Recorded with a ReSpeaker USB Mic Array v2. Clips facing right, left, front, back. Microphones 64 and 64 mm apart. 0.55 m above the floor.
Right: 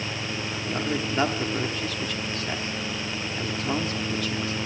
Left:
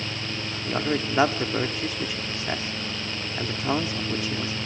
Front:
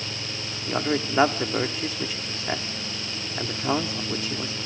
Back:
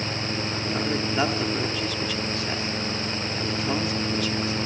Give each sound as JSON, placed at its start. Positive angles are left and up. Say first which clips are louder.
{"t": 0.7, "sound": "a man speaking", "louder": "left 3 dB, front 3 dB", "azimuth_deg": 40, "distance_m": 1.1}